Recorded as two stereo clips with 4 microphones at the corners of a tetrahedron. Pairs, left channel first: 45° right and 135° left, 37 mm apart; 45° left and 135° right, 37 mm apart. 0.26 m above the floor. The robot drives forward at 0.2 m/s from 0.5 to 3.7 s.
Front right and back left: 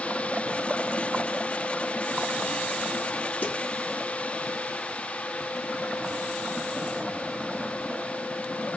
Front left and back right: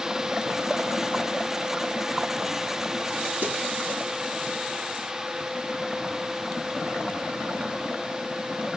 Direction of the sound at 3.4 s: 95° right.